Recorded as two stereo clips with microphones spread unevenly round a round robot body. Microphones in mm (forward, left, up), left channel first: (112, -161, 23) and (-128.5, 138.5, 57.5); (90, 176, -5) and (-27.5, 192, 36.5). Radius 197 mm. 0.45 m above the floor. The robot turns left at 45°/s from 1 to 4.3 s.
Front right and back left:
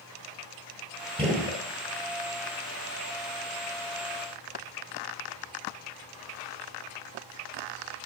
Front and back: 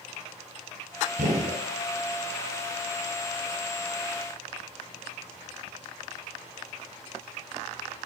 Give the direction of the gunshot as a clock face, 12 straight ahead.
5 o'clock.